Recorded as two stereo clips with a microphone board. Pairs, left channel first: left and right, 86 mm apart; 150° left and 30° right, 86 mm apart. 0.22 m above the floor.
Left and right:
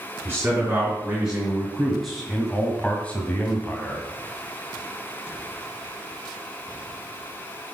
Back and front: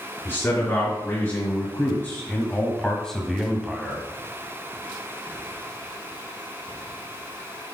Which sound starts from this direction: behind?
A man speaking, at 0.2 s.